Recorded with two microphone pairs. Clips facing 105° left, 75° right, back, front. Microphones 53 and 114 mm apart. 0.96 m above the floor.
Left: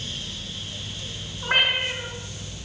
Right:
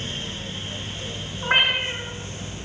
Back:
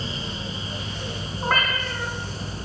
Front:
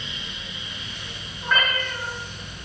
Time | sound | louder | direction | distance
1.4 | a cat meowing | right 1 dB, even | 145° right | 4.5 m